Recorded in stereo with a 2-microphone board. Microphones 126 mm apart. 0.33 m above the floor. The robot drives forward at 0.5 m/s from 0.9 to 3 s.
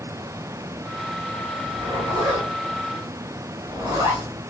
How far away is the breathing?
No breathing in this recording.